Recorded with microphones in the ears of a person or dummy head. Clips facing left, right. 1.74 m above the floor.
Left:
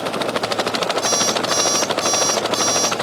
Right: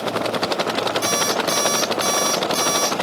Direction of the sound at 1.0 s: 30° right (ahead or behind).